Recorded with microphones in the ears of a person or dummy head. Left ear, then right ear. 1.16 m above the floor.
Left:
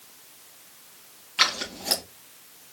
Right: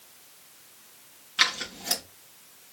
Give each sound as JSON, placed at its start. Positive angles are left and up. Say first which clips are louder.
{"t": 1.4, "sound": "scissors", "louder": "left 1 dB", "side_deg": -5, "distance_m": 3.0}